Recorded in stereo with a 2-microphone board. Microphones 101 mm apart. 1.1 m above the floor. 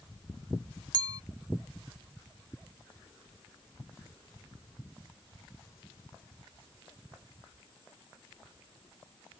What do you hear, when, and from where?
0.9 s a clink: 45° right (ahead or behind)